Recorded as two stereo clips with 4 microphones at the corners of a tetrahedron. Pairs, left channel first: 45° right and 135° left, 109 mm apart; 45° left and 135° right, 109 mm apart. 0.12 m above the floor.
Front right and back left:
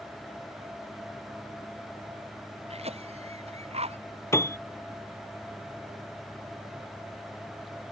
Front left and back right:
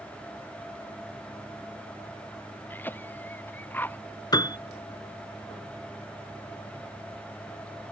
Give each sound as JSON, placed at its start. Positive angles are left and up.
{"t": 2.7, "sound": "a cough", "azimuth_deg": 115}
{"t": 4.3, "sound": "a piano", "azimuth_deg": 10}